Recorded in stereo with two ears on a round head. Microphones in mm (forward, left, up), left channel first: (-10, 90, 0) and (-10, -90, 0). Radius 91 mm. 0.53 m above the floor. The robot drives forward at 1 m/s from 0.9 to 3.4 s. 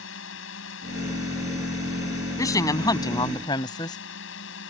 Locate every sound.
0.0 s a drone: 70° left (ahead or behind)
2.4 s a woman speaking: 15° left (ahead or behind); by 4.0 s 20° left (ahead or behind)